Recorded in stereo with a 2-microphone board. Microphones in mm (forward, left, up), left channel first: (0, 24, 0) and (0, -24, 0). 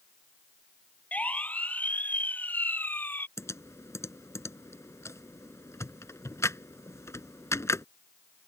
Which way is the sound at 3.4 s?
80° left.